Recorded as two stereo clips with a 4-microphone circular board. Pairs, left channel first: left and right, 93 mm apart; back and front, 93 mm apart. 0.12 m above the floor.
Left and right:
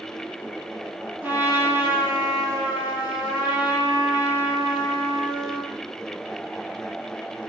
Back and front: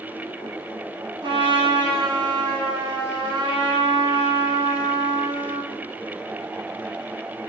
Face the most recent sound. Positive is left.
turn(degrees=-25)